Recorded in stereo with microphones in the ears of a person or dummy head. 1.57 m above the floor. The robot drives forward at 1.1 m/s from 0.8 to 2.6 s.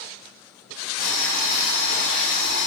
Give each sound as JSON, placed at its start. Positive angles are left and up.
{"t": 1.0, "sound": "boiling", "side_deg": -65, "distance_m": 4.0}